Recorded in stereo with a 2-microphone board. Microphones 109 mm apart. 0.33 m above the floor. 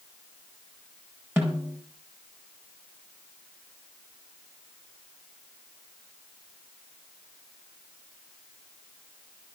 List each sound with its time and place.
1.4 s a snare drum: 20° right (ahead or behind), 5 m